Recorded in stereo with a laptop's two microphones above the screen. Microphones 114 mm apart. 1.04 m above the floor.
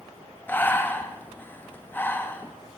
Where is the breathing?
15° left (ahead or behind), 0.5 m.